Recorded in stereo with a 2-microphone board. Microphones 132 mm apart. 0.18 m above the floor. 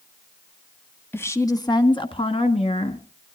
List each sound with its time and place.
1.1 s a woman speaking: 15° left (ahead or behind), 1.1 m; by 3.0 s 50° left (ahead or behind), 2 m